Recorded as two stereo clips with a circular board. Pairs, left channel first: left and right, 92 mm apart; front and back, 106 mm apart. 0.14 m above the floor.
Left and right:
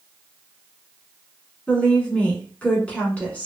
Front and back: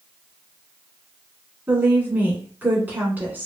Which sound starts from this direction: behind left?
A woman speaking, at 1.7 s.